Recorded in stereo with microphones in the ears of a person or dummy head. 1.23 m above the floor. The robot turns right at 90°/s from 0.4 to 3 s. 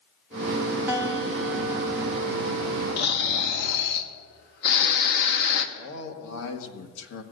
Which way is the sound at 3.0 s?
55° left (ahead or behind).